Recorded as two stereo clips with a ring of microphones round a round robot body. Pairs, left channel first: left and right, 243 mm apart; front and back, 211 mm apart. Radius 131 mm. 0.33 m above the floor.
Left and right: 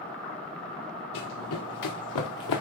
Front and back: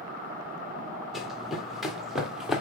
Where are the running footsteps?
90° left, 3 m.